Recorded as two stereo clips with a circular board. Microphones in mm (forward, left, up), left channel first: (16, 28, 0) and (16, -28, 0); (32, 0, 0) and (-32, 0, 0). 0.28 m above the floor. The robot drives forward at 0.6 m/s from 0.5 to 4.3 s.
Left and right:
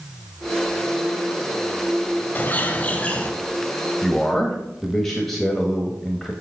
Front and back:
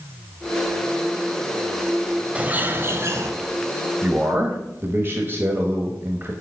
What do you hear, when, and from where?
2.4 s a bird: 120° left, 0.7 m; by 3.3 s 155° left, 1.0 m
4.0 s a man speaking: 170° left, 0.9 m